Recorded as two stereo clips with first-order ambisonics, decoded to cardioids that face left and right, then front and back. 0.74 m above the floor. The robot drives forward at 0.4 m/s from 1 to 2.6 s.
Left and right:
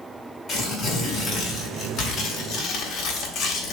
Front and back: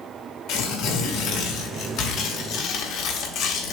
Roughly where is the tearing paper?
Ahead left.